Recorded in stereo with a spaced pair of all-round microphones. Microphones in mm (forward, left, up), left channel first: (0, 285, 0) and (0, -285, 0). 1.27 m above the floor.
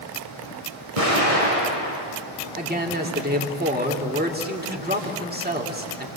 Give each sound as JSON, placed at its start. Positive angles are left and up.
{"t": 1.0, "sound": "an explosion", "side_deg": -75, "distance_m": 5.5}
{"t": 2.6, "sound": "a man speaking", "side_deg": -15, "distance_m": 3.0}